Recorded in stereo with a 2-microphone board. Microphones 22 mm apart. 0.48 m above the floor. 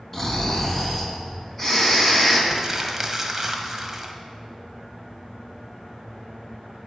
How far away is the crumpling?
About 1.3 m.